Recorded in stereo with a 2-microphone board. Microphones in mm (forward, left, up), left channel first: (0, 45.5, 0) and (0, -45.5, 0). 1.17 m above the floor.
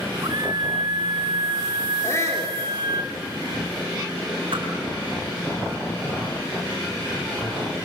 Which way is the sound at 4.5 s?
65° right (ahead or behind).